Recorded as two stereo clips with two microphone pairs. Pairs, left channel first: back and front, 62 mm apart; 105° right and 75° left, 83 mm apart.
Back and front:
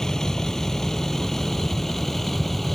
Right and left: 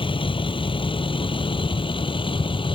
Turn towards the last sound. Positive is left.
turn(degrees=-95)